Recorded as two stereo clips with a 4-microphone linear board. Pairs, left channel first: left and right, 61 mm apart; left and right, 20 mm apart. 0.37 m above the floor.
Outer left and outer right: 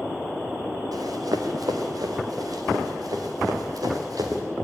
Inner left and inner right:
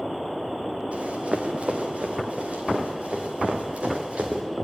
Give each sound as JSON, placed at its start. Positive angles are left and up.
{"t": 0.9, "sound": "running footsteps", "side_deg": -85, "distance_m": 3.0}